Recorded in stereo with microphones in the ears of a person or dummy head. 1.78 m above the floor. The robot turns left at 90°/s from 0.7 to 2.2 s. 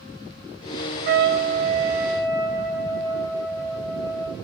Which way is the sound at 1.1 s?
85° right.